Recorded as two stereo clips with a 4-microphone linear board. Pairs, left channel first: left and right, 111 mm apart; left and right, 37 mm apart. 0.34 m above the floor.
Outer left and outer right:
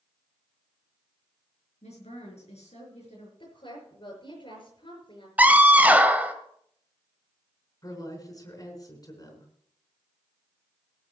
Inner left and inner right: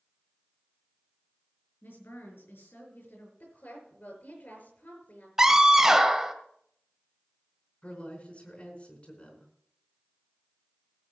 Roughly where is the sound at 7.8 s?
Left.